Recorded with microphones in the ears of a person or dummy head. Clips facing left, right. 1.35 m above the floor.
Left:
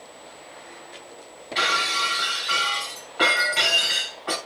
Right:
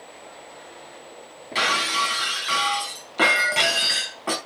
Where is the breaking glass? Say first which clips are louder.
Right 2 dB; 50° right (ahead or behind), 3.5 m.